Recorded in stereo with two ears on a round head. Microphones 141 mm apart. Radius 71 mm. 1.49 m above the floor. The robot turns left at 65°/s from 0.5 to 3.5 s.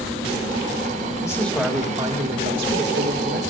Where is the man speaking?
25° left, 2 m; by 3.4 s 115° right, 2 m.